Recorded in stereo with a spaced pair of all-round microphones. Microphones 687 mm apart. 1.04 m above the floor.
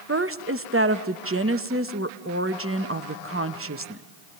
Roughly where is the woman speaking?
Right.